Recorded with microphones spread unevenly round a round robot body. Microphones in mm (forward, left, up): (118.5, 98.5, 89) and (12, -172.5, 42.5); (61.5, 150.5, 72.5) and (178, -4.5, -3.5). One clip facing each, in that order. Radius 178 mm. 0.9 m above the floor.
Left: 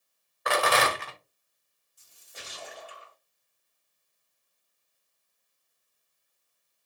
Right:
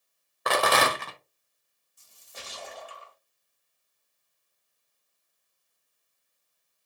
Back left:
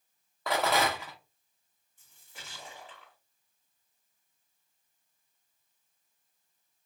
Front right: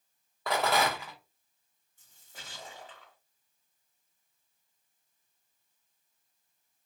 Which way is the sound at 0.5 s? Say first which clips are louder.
Right 1 dB, even; 125° right.